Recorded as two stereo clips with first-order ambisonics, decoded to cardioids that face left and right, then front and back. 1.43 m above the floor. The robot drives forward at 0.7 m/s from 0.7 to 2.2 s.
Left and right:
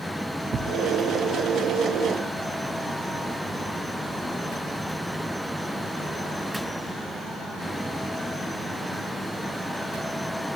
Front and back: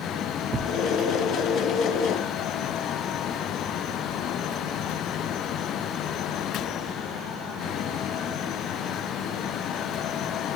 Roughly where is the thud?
Behind right.